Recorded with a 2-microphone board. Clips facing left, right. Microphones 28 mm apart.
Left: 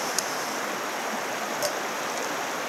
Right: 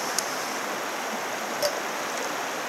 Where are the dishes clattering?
35° right (ahead or behind), 1.8 m.